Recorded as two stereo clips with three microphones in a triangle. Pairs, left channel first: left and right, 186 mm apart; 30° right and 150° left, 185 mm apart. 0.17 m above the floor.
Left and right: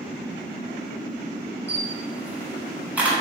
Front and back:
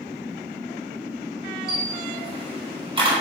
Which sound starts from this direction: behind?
A camera shutter, at 1.7 s.